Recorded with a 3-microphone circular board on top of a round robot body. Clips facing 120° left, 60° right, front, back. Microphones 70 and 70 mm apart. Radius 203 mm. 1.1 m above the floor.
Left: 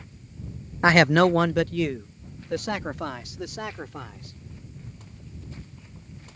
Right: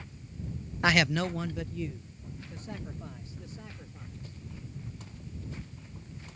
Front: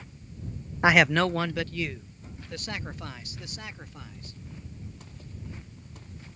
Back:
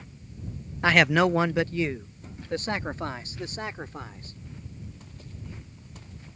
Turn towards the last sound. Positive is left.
turn(degrees=125)